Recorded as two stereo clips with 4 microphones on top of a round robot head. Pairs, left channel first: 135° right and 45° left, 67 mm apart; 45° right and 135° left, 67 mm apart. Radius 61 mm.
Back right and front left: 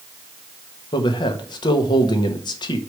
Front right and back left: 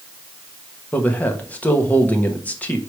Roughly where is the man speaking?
Behind right.